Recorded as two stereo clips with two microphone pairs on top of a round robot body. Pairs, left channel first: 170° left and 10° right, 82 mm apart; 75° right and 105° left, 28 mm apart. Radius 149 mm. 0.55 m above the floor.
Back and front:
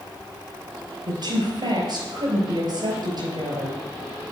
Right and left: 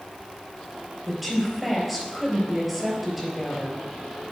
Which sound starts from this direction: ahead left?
A woman speaking, at 1.1 s.